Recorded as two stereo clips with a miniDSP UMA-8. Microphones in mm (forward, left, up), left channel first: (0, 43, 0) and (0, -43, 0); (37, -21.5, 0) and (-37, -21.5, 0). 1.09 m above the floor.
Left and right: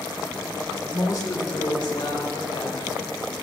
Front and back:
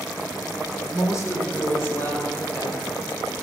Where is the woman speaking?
45° left, 3 m; by 2.9 s 75° left, 4.5 m.